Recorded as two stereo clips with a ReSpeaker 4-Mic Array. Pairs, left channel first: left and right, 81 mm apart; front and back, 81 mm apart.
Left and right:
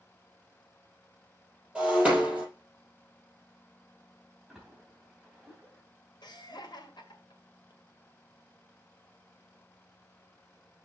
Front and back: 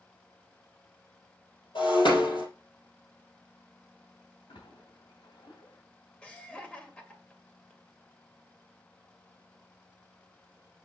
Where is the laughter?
75° left, 2 m.